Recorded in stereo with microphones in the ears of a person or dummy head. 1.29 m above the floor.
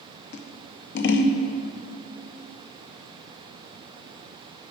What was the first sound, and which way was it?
Scissors, 55° left (ahead or behind).